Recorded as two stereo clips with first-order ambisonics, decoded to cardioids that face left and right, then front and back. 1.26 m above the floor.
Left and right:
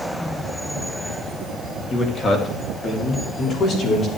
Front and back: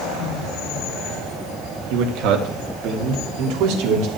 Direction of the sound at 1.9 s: 155° left.